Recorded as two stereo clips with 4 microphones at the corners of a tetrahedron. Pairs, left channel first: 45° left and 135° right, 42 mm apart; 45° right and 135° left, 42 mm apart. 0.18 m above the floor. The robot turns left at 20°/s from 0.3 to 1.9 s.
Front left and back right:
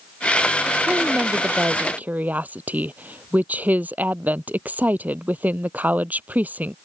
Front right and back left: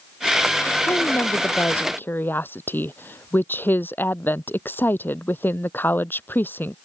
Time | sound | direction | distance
0.9 | a woman speaking | 65° right | ?